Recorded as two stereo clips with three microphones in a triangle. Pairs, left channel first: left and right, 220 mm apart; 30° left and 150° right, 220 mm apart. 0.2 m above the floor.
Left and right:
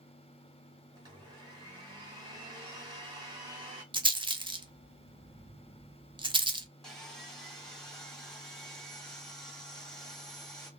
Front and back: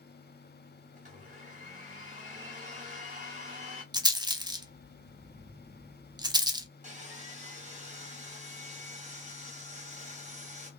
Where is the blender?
145° right, 1.9 m.